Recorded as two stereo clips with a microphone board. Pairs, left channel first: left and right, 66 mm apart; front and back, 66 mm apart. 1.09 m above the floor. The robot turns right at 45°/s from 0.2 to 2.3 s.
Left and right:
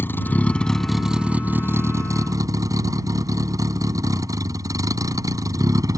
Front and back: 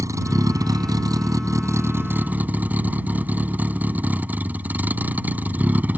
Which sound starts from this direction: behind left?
A vehicle, at 0.0 s.